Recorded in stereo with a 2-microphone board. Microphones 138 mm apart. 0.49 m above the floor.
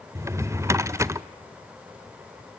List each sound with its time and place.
0.1 s a drawer: 20° right (ahead or behind), 0.6 m